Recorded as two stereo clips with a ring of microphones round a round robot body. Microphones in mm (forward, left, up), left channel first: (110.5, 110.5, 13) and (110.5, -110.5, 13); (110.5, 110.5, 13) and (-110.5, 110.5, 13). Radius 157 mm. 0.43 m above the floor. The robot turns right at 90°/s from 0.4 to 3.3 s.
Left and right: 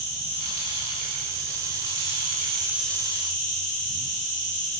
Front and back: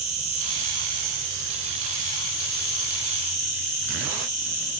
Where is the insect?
140° left, 3.5 m; by 4.8 s 40° left, 3.5 m.